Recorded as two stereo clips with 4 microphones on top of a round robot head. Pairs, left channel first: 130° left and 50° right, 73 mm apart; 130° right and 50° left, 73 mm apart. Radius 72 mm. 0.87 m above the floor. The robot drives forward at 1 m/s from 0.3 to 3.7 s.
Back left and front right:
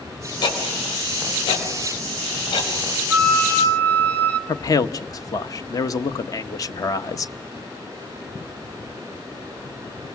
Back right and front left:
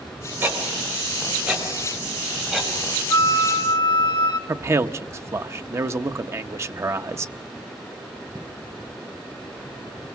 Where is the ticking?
110° left, 4 m; by 2.7 s 135° left, 5.5 m.